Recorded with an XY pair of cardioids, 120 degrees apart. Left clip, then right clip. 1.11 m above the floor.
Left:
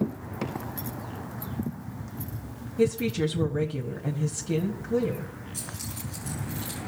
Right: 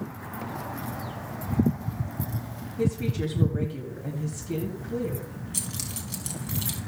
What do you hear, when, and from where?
2.8 s a woman speaking: 35° left, 1.9 m
5.5 s keys jangling: 65° right, 3.5 m